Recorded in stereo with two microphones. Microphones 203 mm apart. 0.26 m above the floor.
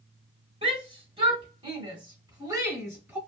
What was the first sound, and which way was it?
A shout, 30° right (ahead or behind).